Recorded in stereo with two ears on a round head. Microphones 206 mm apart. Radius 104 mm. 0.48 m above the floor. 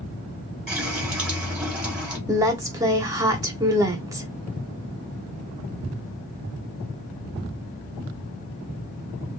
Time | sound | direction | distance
0.7 | a running tap | 5° right (ahead or behind) | 1.8 m
2.3 | a woman speaking | 15° right (ahead or behind) | 0.7 m